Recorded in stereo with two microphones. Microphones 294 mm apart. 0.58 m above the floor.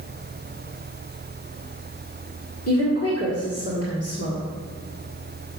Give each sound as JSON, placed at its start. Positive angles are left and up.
{"t": 2.7, "sound": "a woman speaking", "side_deg": 50, "distance_m": 1.7}